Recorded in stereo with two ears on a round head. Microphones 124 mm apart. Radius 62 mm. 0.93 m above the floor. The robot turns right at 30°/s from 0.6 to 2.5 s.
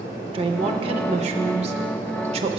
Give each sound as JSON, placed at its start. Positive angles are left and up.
{"t": 0.3, "sound": "a woman speaking", "azimuth_deg": -125, "distance_m": 0.6}